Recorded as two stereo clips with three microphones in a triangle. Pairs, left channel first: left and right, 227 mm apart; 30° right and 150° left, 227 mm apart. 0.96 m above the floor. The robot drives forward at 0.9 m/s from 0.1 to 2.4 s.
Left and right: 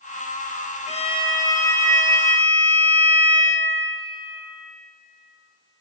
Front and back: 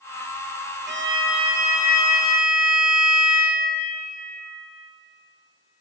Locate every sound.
0.9 s a violin: 135° left, 0.5 m; by 3.5 s 170° left, 1.7 m